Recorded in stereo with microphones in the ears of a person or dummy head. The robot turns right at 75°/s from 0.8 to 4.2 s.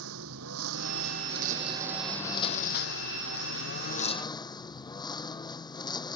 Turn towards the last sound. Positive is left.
turn(degrees=165)